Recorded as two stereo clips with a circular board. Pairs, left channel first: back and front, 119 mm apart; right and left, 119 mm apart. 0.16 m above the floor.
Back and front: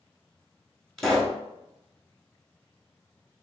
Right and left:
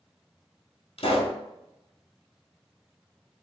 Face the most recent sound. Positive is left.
turn(degrees=-95)